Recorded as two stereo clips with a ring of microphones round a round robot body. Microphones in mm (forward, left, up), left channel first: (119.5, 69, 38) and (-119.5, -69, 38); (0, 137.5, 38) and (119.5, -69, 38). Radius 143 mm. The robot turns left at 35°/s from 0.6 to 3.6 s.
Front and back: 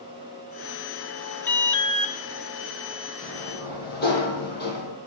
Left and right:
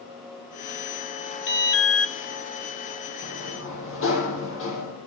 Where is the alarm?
110° left, 2.5 m; by 2.1 s 85° left, 2.5 m.